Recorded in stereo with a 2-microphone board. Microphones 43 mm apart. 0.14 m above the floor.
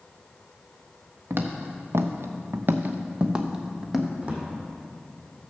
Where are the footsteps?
60° right (ahead or behind), 1.2 m; by 4.1 s centre (ahead or behind), 1.4 m.